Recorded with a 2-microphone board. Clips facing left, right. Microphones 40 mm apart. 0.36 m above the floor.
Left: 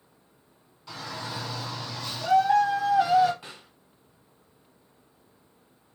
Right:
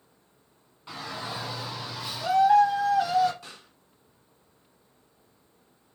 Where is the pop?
15° left (ahead or behind), 1.9 m.